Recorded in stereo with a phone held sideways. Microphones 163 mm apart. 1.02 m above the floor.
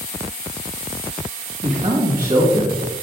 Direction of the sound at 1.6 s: 40° right (ahead or behind).